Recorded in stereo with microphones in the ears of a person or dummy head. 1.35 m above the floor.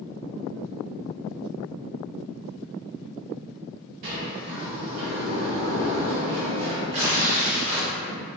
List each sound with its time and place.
4.0 s a sliding door: 35° right (ahead or behind), 1.3 m
6.9 s tearing paper: 30° right (ahead or behind), 1.2 m